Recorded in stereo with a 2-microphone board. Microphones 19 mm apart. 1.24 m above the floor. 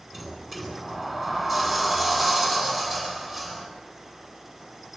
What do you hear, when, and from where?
0.1 s a sliding door: 20° right (ahead or behind), 10 m